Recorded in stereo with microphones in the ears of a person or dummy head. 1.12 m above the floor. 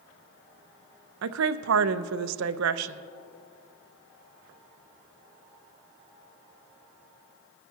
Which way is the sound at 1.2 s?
75° right (ahead or behind).